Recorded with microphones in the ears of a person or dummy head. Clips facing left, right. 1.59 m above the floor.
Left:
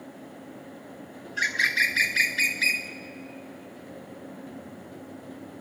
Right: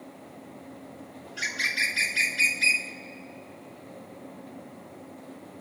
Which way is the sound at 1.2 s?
20° left (ahead or behind).